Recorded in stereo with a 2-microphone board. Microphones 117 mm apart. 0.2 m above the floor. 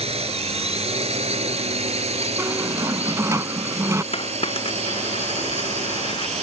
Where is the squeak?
30° right (ahead or behind).